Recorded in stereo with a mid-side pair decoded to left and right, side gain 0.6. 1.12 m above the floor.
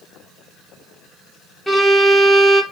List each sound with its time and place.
1.7 s a violin: 5° left, 0.8 m